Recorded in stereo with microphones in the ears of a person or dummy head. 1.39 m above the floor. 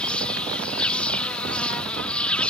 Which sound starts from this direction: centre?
An insect, at 0.0 s.